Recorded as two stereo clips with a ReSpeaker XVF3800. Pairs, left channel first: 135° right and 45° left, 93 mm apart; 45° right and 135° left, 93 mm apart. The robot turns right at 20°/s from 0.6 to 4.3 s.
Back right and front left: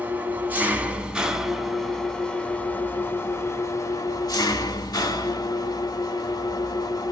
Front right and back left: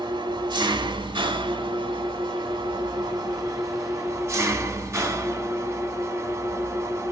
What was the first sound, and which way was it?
An engine running, 115° left.